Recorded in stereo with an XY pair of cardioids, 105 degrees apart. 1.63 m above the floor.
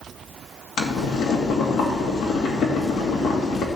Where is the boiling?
65° left, 2.5 m.